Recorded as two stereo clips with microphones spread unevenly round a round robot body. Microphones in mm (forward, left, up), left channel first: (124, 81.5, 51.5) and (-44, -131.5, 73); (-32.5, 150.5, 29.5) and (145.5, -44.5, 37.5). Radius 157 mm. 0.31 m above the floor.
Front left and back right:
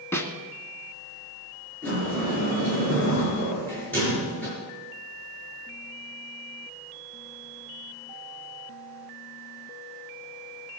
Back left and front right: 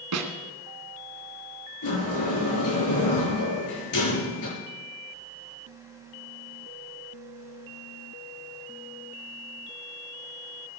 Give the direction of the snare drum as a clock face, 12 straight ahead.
1 o'clock.